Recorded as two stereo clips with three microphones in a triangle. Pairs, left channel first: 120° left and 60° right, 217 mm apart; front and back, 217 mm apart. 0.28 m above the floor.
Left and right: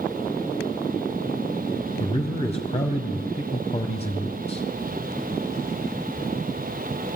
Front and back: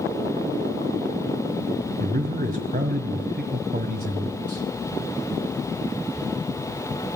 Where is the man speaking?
165° left, 1.8 m.